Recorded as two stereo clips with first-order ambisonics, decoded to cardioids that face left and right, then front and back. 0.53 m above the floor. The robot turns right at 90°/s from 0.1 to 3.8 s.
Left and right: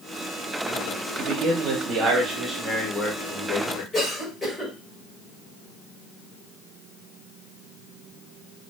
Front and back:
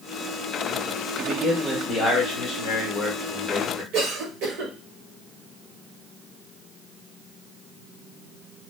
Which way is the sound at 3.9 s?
170° left.